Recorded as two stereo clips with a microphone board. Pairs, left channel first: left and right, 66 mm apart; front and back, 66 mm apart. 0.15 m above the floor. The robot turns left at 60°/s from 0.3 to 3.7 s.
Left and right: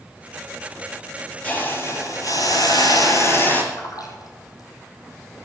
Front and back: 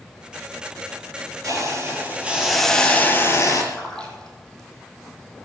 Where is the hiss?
155° left, 3.5 m; by 3.6 s 25° left, 3.5 m.